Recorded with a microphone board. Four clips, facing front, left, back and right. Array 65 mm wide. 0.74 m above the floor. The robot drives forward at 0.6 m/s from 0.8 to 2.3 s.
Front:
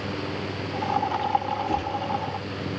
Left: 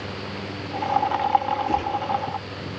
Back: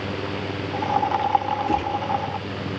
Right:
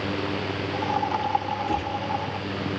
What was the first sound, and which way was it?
A gunshot, 155° left.